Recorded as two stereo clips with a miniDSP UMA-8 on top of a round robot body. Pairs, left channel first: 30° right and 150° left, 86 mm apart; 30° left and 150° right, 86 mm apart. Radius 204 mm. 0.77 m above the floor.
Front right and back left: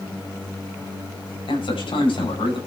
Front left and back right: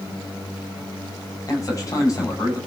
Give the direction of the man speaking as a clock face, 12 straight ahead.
1 o'clock.